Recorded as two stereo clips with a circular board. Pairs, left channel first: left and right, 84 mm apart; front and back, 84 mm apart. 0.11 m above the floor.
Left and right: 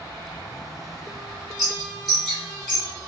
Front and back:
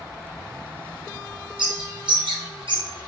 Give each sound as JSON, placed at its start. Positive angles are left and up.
{"t": 1.6, "sound": "a bird", "azimuth_deg": -175, "distance_m": 1.6}